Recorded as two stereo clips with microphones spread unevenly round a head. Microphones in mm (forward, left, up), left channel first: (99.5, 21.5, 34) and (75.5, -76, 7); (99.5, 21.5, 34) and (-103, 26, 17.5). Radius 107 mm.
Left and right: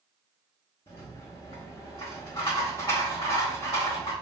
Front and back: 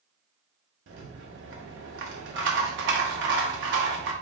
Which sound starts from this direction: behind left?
A rattle, at 0.9 s.